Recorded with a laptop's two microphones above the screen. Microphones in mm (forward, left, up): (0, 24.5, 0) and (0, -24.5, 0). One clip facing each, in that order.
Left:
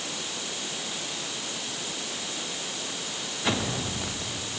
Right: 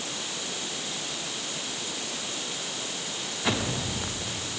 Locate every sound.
Only background noise.